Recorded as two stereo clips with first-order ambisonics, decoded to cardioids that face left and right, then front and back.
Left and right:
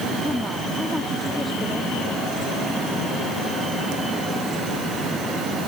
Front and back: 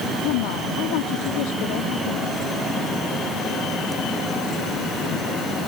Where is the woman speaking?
Straight ahead; by 2.4 s 10° left.